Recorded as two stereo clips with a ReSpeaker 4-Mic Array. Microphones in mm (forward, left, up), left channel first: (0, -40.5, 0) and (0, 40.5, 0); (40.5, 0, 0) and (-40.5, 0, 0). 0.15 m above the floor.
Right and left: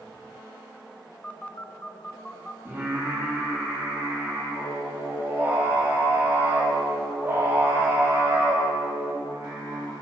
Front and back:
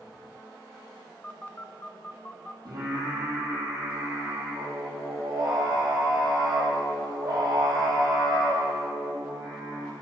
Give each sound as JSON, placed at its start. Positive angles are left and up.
{"t": 1.2, "sound": "a phone buzzing", "azimuth_deg": -40, "distance_m": 0.7}
{"t": 2.6, "sound": "singing", "azimuth_deg": 150, "distance_m": 4.5}